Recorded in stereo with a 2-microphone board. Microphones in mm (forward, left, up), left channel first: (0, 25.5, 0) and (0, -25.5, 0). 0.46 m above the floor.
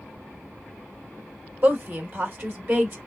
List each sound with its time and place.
1.6 s a woman speaking: 45° right (ahead or behind), 1.6 m